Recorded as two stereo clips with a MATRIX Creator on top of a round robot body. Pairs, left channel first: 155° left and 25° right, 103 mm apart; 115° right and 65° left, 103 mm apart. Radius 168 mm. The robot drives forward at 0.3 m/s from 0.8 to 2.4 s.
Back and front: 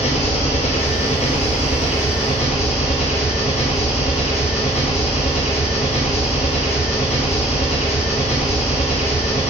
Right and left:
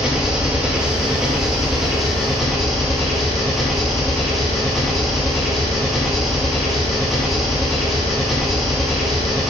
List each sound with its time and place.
0.0 s an engine running: 150° left, 1.6 m; by 9.5 s 155° left, 2 m